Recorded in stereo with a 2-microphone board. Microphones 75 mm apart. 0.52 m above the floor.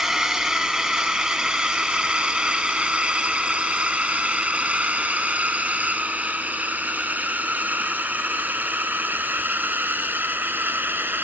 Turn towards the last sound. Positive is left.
turn(degrees=-25)  # may be behind; listen again after turning